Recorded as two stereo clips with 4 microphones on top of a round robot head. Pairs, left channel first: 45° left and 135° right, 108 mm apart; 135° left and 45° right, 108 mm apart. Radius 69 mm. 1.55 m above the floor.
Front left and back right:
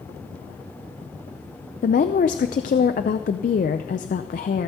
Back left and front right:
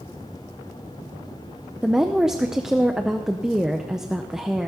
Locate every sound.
1.8 s a woman speaking: 40° left, 0.5 m